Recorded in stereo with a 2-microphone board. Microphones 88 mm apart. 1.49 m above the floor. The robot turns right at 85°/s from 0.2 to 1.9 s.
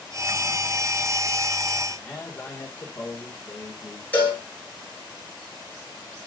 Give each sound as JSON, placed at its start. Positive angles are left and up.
{"t": 2.0, "sound": "a man speaking", "side_deg": 15, "distance_m": 2.5}
{"t": 4.1, "sound": "a cowbell", "side_deg": 25, "distance_m": 6.5}